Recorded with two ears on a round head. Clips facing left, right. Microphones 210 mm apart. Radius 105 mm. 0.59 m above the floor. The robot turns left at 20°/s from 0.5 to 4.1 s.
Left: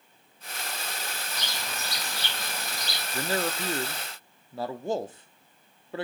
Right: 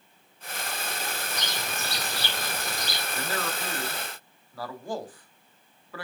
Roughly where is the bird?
Ahead.